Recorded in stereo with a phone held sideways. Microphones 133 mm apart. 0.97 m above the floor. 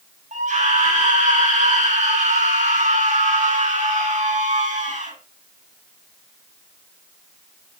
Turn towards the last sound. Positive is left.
turn(degrees=-65)  # may be behind; listen again after turning